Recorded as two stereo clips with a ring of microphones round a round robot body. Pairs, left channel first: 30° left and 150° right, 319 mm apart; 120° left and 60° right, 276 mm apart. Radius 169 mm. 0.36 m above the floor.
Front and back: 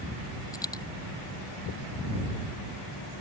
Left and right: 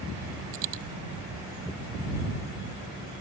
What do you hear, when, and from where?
0.5 s a dropped coin: 50° right